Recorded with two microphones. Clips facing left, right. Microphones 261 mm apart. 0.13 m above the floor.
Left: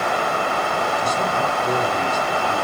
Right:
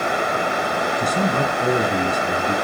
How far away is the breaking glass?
I don't hear breaking glass.